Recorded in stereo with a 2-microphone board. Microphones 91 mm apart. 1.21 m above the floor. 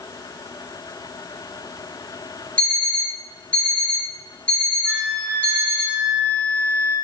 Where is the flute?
10° right (ahead or behind), 1.1 m.